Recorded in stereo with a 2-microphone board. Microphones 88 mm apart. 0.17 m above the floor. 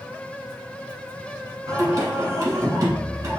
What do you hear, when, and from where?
1.7 s singing: 45° right (ahead or behind), 0.8 m